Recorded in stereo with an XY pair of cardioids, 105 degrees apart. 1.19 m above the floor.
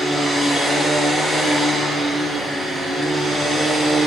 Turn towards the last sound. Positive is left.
turn(degrees=-20)